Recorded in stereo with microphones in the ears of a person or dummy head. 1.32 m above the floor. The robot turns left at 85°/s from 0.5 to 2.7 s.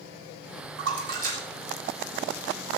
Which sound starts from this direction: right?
A splash, at 0.8 s.